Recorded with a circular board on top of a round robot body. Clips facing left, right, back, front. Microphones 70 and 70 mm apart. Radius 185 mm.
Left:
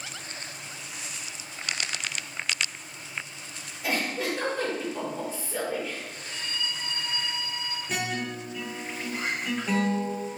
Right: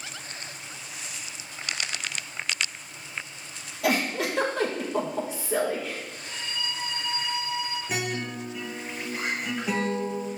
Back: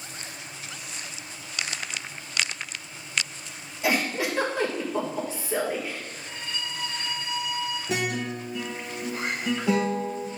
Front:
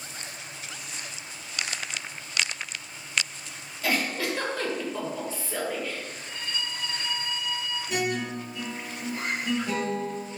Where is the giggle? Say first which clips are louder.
Right 3 dB, back 2 dB; 105° right, 1.5 m.